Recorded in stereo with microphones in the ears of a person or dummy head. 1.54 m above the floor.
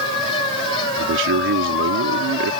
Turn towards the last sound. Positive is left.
turn(degrees=-70)  # may be behind; listen again after turning